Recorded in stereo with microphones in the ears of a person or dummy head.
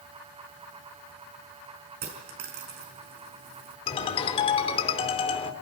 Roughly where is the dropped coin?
Right.